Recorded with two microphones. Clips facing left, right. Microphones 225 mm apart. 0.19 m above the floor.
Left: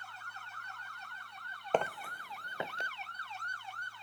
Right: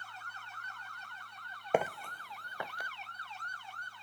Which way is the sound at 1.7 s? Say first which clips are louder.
Right 1 dB; 10° right (ahead or behind).